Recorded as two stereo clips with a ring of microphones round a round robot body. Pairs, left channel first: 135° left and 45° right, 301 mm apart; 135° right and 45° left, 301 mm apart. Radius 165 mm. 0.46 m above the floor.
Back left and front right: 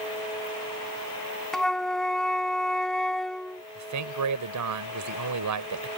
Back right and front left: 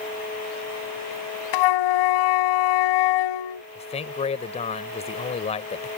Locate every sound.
1.5 s a flute: 135° right
3.8 s a man speaking: 65° right